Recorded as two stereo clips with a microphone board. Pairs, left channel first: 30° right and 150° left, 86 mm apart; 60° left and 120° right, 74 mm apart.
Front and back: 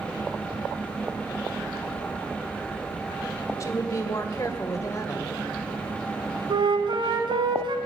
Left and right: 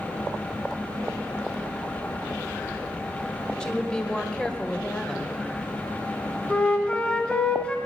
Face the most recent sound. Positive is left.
turn(degrees=135)